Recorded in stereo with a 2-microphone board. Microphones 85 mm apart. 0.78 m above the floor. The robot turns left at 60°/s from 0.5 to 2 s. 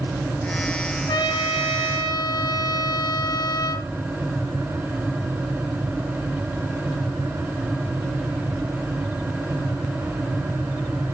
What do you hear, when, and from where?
1.1 s a trumpet: 115° left, 0.9 m; by 3.9 s 60° left, 0.9 m